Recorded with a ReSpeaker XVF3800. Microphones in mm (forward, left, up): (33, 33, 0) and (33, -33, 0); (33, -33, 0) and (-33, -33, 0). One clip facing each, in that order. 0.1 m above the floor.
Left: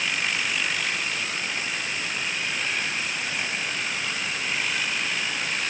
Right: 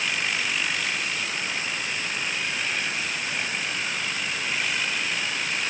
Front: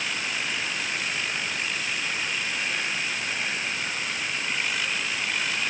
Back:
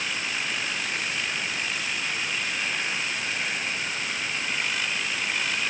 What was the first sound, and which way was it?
Only background noise.